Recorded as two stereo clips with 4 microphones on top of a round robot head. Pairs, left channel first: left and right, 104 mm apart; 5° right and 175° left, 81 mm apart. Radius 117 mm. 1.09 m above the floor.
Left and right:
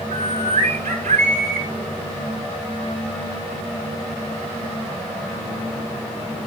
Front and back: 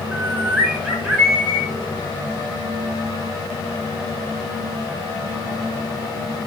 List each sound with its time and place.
0.1 s a bird: 105° right, 3 m